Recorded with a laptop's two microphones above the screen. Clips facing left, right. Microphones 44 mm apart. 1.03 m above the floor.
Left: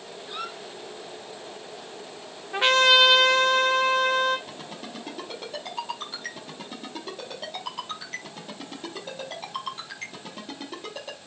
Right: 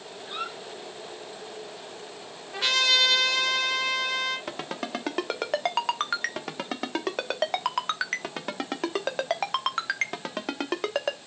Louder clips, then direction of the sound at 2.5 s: Left 6 dB; 35° left (ahead or behind).